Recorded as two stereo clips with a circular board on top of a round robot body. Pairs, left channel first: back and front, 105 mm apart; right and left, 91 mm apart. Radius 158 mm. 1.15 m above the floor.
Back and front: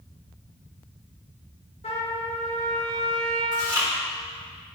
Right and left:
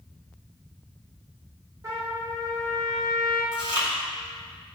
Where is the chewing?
55° left, 2.5 m.